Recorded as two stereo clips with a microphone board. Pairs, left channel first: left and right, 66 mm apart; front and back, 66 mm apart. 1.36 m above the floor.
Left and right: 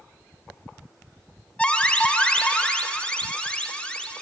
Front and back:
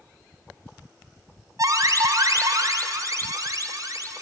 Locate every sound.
1.6 s an alarm: 165° left, 0.5 m